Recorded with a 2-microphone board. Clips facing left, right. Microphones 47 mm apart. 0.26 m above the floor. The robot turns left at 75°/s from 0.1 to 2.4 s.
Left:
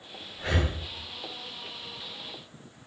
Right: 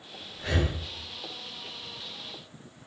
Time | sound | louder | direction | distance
0.4 | breathing | even | 25° left (ahead or behind) | 1.2 m